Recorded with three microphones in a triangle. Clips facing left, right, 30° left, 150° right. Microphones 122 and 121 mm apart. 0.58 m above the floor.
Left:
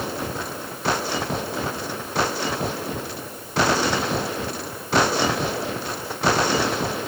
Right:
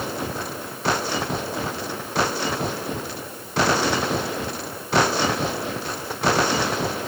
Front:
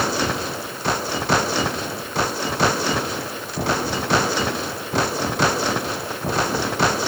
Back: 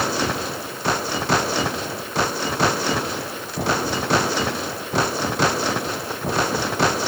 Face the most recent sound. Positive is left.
No sound to turn to.